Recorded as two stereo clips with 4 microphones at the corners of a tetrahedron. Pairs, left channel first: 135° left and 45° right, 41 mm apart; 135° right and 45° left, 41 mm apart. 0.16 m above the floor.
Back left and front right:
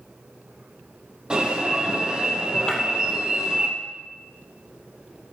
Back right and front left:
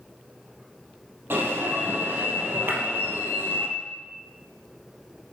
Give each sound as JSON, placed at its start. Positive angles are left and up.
{"t": 1.3, "sound": "an alarm", "azimuth_deg": 20, "distance_m": 3.5}
{"t": 2.7, "sound": "breaking glass", "azimuth_deg": 65, "distance_m": 2.5}